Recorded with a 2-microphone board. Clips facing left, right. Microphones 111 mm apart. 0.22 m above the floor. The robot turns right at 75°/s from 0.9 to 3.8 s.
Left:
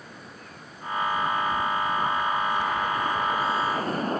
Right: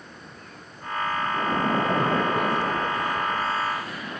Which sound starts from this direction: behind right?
A splash, at 1.3 s.